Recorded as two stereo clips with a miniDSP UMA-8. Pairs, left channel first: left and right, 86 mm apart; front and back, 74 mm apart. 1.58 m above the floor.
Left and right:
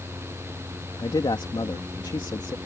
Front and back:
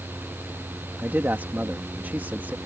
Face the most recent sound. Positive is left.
turn(degrees=115)